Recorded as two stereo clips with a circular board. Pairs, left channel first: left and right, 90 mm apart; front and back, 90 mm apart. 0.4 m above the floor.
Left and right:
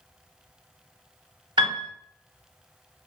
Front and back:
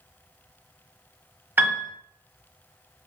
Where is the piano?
115° right, 0.8 m.